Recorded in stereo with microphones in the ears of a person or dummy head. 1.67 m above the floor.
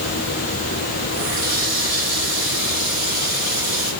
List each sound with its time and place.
1.1 s a running tap: 15° right (ahead or behind), 5.5 m